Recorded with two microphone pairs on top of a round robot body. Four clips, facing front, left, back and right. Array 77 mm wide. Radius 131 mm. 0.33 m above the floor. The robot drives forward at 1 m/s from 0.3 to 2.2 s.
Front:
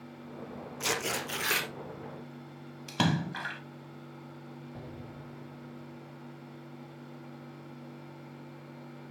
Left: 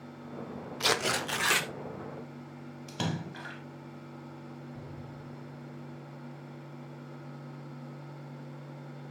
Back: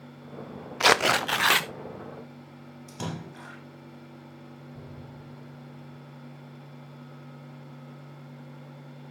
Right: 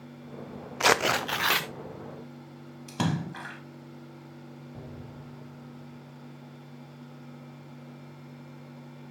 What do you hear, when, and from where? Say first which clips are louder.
0.8 s tearing paper: right 6 dB, back 12 dB; 135° right, 0.6 m; by 1.7 s 165° right, 1.4 m
2.9 s a splash: right 5 dB, front 7 dB; 45° right, 1.7 m
4.7 s an explosion: right 1 dB, even; 70° right, 6 m